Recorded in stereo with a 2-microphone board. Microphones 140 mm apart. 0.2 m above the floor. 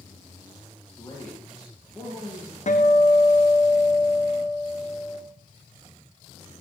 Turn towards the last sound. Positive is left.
turn(degrees=55)  # may be behind; listen again after turning